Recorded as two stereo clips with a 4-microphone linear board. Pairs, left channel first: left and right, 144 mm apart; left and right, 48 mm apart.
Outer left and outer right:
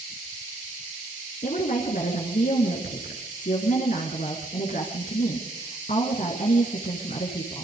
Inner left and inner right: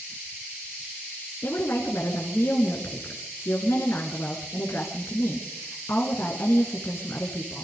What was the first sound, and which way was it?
A woman speaking, 65° left (ahead or behind).